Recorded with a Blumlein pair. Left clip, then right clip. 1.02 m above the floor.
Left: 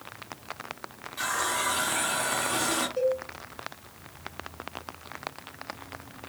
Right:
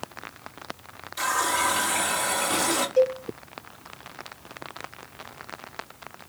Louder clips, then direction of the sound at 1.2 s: Right 4 dB; 30° right.